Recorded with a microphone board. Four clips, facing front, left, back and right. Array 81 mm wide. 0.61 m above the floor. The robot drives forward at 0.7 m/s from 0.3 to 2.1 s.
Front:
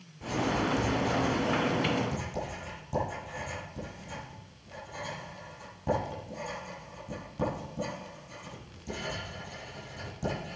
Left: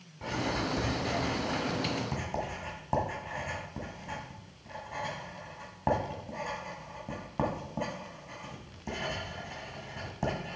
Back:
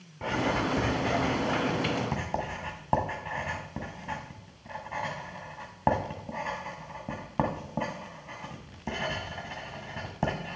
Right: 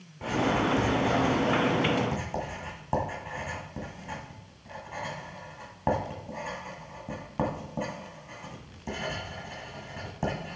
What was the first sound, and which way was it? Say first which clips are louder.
Writing: right 6 dB, back 1 dB; 175° right.